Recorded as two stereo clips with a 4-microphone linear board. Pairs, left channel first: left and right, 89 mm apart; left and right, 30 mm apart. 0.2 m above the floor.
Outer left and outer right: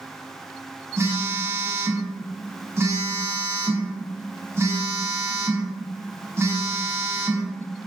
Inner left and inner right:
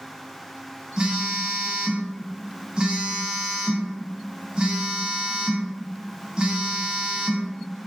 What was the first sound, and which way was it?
A phone buzzing, 30° right (ahead or behind).